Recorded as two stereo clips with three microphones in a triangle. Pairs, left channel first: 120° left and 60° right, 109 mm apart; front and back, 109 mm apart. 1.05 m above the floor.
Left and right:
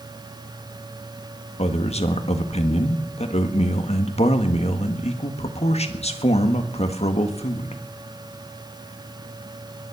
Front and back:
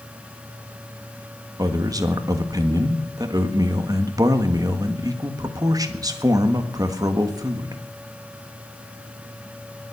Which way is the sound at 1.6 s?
125° left.